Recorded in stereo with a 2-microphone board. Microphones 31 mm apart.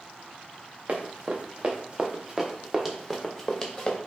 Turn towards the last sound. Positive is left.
turn(degrees=15)  # may be behind; listen again after turning